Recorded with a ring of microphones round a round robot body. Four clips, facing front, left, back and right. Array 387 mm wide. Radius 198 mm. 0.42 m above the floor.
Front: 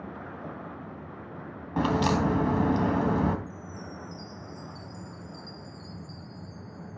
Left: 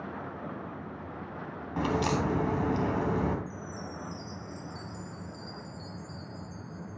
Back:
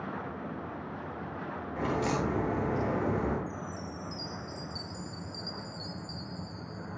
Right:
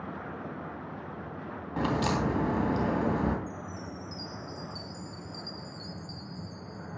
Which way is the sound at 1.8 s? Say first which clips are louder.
Even, front 6 dB; 5° right.